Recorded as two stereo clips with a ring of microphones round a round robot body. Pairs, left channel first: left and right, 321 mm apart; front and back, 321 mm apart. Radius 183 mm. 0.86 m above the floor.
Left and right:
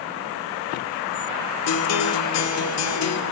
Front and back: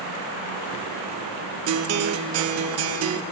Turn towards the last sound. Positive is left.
turn(degrees=135)